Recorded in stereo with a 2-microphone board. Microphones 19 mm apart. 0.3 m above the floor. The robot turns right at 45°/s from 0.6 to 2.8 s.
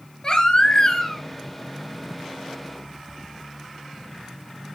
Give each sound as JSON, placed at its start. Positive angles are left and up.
{"t": 0.2, "sound": "a baby crying", "side_deg": 40, "distance_m": 2.5}